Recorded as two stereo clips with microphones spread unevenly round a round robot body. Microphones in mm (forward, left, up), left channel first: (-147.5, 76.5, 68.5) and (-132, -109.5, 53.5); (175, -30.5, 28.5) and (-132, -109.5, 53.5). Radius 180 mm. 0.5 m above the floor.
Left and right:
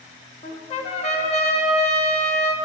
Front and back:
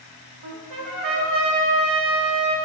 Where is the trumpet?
155° left, 1.0 m.